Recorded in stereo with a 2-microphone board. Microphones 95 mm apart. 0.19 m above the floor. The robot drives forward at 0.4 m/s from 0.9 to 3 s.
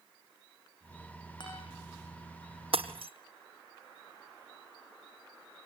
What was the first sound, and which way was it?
A guitar, 55° left (ahead or behind).